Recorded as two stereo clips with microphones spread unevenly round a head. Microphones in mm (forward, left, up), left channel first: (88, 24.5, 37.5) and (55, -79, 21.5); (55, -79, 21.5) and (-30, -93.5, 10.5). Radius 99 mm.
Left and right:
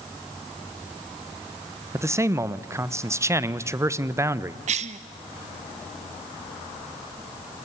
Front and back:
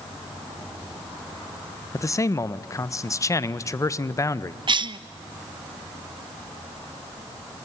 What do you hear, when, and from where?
1.9 s a man speaking: 45° right, 1.2 m
4.7 s a cough: 140° right, 0.9 m